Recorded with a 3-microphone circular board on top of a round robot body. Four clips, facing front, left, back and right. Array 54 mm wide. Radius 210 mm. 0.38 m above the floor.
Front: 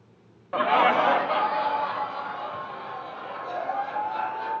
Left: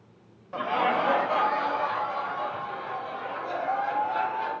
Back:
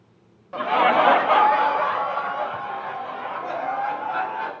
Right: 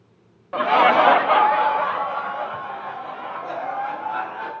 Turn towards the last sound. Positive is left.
turn(degrees=-145)